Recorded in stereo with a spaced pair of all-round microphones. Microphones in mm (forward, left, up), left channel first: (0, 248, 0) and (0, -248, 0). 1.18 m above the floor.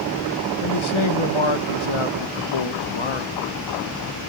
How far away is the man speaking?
About 1.0 m.